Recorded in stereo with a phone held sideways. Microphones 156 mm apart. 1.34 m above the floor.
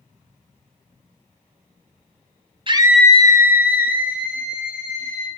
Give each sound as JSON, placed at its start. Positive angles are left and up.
{"t": 2.7, "sound": "a scream", "side_deg": -35, "distance_m": 0.8}